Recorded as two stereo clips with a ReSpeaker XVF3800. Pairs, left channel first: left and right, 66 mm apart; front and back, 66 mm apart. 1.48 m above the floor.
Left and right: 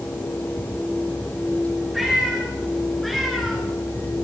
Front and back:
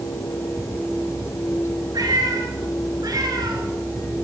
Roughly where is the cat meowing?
Behind.